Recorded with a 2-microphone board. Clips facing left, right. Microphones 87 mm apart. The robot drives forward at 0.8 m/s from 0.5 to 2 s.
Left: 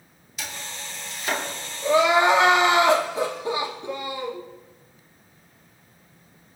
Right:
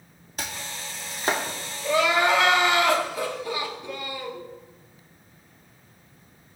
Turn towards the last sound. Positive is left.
turn(degrees=25)  # may be behind; listen again after turning